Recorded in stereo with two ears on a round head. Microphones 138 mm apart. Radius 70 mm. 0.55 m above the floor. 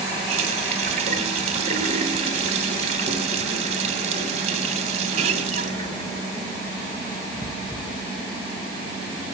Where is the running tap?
45° right (ahead or behind), 2 m.